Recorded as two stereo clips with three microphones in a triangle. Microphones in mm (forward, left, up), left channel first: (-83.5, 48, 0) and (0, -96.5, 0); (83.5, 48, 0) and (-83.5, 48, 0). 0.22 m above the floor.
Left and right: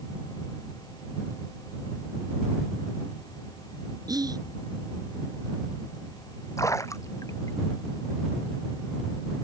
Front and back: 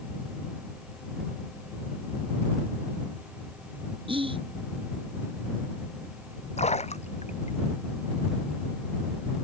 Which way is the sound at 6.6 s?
50° left.